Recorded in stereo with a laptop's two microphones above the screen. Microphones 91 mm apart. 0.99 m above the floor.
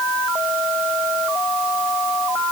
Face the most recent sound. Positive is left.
No sound to turn to.